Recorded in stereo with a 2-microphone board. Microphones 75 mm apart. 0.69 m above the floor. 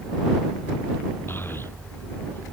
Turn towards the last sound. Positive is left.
turn(degrees=30)  # may be behind; listen again after turning